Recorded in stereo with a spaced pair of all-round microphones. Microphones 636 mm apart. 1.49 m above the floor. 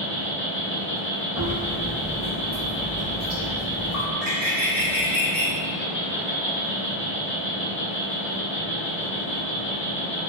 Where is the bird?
45° right (ahead or behind), 0.7 m.